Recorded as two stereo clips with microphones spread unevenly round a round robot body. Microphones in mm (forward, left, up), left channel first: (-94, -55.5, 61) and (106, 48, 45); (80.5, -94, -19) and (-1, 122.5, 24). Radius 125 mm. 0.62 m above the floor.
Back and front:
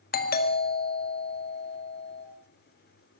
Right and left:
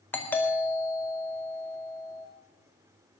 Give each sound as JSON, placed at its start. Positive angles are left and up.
{"t": 0.1, "sound": "a doorbell", "azimuth_deg": -135, "distance_m": 1.9}